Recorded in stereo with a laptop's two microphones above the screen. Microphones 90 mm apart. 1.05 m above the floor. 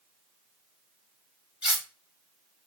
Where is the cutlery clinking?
15° right (ahead or behind), 1.2 m.